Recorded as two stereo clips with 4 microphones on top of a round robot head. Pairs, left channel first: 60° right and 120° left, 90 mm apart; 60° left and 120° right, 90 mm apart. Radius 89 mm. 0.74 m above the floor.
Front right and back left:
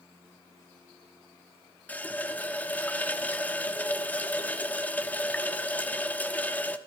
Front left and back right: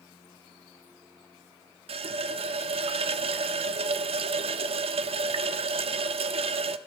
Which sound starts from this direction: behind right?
A running tap, at 1.9 s.